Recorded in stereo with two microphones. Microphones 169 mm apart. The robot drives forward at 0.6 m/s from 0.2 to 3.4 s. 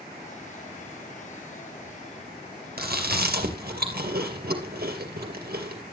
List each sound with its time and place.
2.8 s chewing: 65° right (ahead or behind), 2.5 m